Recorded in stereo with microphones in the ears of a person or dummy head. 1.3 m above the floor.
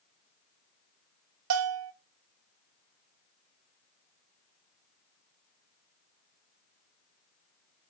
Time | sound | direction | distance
1.5 | a bell | 80° right | 0.5 m